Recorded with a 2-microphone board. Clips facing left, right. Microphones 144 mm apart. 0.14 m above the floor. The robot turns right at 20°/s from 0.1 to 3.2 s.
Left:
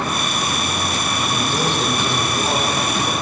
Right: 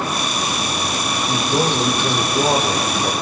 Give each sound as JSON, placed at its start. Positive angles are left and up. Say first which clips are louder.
{"t": 1.3, "sound": "a man speaking", "louder": "right 4 dB", "azimuth_deg": -155, "distance_m": 6.5}